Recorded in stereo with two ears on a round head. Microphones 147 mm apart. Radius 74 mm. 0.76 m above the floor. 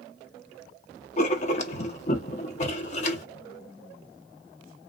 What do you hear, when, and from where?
1.2 s writing: 45° left (ahead or behind), 0.7 m